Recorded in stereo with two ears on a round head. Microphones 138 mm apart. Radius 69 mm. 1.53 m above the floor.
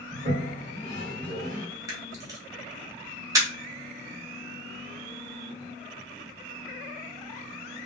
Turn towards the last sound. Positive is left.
turn(degrees=-25)  # may be behind; listen again after turning